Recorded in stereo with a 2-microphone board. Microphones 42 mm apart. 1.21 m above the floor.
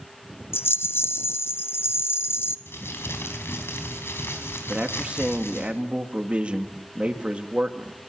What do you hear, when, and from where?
0.5 s a rattle: 65° left (ahead or behind), 0.8 m
2.7 s crumpling: 70° left (ahead or behind), 5 m
4.7 s a man speaking: 25° right (ahead or behind), 2.5 m